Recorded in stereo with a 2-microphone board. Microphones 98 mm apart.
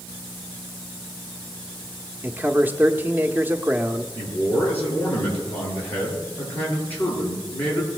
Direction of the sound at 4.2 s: 20° left (ahead or behind).